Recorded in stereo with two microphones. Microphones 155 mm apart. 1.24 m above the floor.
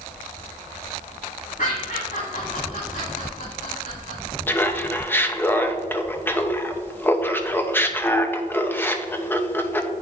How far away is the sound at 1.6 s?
About 2.5 m.